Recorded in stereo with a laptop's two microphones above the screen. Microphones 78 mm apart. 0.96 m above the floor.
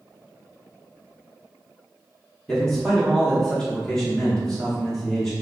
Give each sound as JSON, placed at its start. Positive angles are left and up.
{"t": 2.5, "sound": "a man speaking", "side_deg": 10, "distance_m": 0.7}